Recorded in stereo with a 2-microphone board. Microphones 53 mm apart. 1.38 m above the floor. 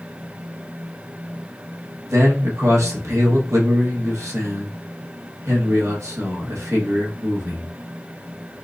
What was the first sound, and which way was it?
A man speaking, 80° right.